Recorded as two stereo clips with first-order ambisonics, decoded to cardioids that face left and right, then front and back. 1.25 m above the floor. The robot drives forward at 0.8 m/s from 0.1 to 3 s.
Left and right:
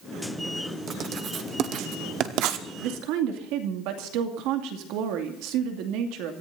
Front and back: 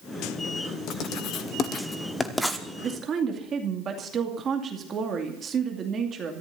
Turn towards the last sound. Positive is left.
turn(degrees=-115)